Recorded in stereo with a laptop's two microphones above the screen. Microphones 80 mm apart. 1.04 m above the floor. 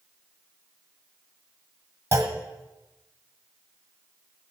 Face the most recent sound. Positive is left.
turn(degrees=-35)  # may be behind; listen again after turning